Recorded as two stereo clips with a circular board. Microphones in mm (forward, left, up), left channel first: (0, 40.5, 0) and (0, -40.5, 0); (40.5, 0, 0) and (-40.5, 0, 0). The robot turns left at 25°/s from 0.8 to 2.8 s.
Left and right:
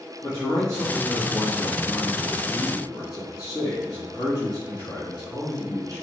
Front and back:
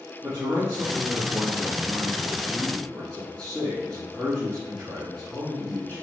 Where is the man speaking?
135° left, 3 m; by 6.0 s 85° left, 3 m.